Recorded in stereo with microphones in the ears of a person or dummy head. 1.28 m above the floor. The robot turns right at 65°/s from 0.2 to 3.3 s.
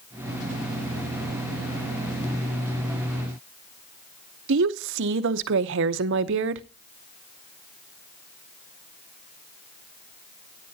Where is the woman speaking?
65° right (ahead or behind), 0.7 m.